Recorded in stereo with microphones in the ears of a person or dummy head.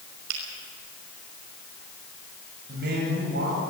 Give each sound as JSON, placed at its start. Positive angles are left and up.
{"t": 0.3, "sound": "a finger snap", "side_deg": -80, "distance_m": 6.0}
{"t": 2.7, "sound": "a man speaking", "side_deg": -55, "distance_m": 9.5}